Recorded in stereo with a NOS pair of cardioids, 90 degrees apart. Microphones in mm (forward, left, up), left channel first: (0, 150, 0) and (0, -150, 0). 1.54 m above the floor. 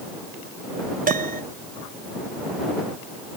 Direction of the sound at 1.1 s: 25° right.